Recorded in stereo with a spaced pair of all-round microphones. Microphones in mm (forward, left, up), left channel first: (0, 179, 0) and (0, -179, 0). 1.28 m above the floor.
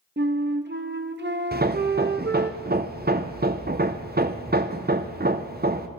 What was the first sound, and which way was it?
A flute, 30° right (ahead or behind).